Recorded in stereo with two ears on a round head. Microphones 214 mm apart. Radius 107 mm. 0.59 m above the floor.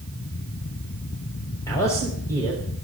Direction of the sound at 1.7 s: 15° left (ahead or behind).